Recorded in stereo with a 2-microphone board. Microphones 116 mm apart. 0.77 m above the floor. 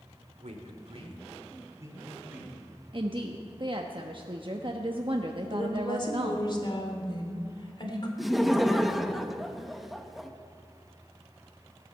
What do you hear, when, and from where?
0.4 s a man speaking: 75° right (ahead or behind), 2 m; by 2.7 s 10° right (ahead or behind), 3.5 m
2.9 s a woman speaking: 45° right (ahead or behind), 0.8 m
5.5 s a woman speaking: 40° left (ahead or behind), 2.5 m
8.2 s laughter: centre (ahead or behind), 0.9 m